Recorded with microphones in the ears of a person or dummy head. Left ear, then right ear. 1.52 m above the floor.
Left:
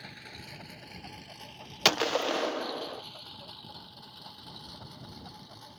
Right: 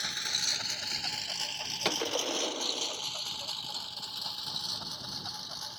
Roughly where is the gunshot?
Left.